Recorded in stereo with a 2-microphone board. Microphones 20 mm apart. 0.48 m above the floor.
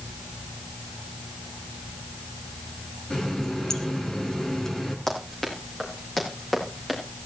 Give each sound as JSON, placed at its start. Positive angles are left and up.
{"t": 3.1, "sound": "a running tap", "side_deg": 30, "distance_m": 3.5}
{"t": 5.1, "sound": "running footsteps", "side_deg": 25, "distance_m": 8.5}